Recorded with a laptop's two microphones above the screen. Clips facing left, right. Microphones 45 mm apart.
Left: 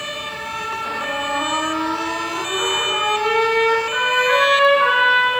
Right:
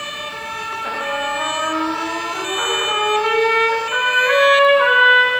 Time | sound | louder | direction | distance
0.8 | a trumpet | right 3 dB | 20° right (ahead or behind) | 5 m